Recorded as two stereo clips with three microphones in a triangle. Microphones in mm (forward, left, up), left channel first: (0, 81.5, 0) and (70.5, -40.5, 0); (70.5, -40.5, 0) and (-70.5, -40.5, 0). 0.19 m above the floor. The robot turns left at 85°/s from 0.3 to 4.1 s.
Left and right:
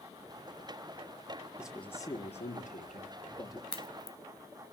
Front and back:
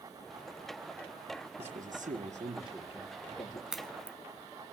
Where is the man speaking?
140° right, 5 m; by 3.6 s 50° left, 5 m.